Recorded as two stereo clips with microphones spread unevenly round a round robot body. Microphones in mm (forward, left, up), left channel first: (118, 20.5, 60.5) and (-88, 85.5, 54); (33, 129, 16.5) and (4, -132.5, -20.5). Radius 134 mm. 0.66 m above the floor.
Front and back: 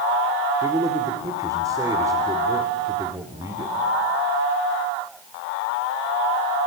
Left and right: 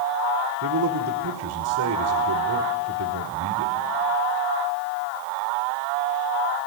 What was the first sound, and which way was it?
A man speaking, 120° right.